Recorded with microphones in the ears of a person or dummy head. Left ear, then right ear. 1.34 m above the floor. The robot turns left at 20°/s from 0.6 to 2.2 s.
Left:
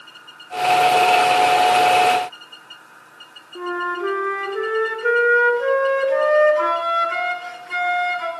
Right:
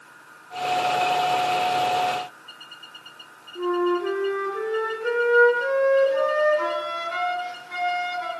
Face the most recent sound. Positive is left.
turn(degrees=35)  # may be behind; listen again after turning